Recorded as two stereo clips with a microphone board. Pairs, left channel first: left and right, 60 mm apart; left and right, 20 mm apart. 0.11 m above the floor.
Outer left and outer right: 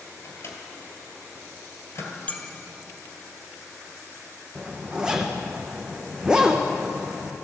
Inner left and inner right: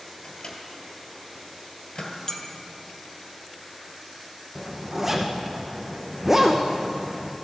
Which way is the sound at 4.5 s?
10° right (ahead or behind).